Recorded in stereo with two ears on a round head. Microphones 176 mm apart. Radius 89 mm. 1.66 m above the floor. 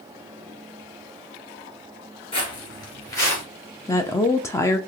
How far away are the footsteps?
About 1.8 m.